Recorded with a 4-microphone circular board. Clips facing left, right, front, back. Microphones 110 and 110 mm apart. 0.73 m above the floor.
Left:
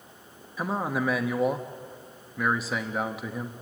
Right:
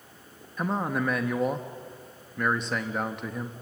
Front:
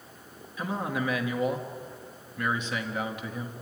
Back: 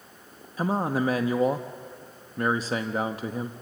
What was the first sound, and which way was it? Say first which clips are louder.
A man speaking: even, back 5 dB; 175° left.